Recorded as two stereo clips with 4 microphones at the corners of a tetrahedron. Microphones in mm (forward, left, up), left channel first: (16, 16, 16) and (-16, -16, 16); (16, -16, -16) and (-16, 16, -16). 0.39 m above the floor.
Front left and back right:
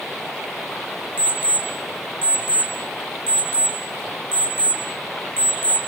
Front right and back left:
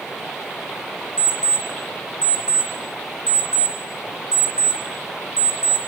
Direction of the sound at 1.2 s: 70° left.